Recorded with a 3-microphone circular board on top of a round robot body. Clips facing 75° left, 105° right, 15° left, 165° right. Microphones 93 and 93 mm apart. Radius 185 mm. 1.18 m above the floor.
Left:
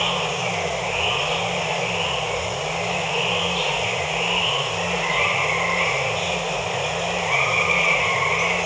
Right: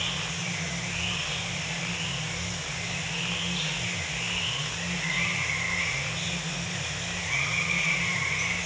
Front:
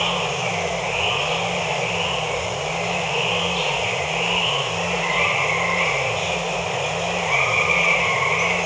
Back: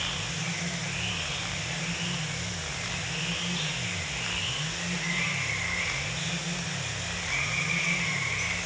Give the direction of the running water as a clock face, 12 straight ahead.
11 o'clock.